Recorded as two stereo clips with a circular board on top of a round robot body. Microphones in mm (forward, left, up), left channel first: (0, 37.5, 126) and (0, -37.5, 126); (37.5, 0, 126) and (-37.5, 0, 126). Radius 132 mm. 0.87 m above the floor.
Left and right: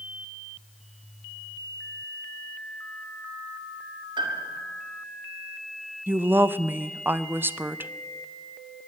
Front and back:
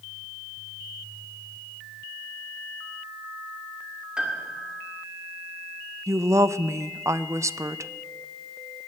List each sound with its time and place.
4.2 s a piano: 100° right, 2 m
6.1 s a woman speaking: 145° right, 0.6 m